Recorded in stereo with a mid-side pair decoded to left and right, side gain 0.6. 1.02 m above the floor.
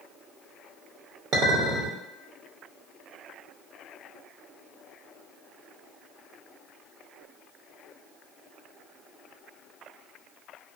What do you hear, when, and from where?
1.3 s a clink: 60° right, 0.7 m